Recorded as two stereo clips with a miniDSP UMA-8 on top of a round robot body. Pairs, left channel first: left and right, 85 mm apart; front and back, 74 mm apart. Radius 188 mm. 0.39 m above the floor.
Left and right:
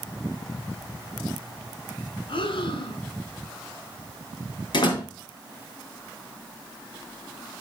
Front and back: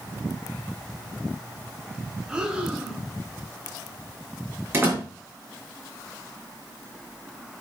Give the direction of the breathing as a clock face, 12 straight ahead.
9 o'clock.